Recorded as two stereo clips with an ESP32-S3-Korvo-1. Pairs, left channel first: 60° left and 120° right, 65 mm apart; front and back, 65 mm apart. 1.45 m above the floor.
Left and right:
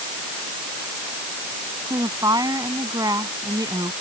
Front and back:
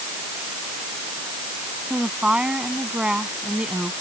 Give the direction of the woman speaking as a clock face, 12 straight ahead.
4 o'clock.